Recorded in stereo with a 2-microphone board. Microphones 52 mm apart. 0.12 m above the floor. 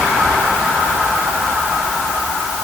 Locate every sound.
Only background noise.